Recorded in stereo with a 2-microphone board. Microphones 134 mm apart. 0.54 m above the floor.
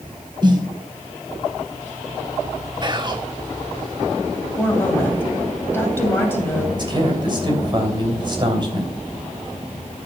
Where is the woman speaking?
15° left (ahead or behind), 2.5 m.